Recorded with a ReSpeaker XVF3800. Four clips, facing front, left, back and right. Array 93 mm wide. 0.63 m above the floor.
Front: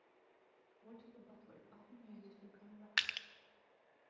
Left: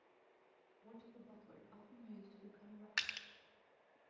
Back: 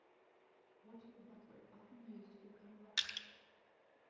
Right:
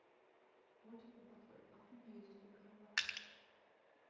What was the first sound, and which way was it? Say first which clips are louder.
A woman speaking: left 1 dB, front 1 dB; 25° left.